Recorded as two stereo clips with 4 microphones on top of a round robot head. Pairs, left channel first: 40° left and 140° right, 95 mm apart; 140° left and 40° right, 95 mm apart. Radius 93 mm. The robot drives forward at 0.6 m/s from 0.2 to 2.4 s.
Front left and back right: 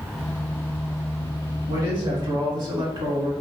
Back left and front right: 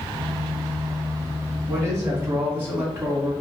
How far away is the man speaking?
About 1.6 m.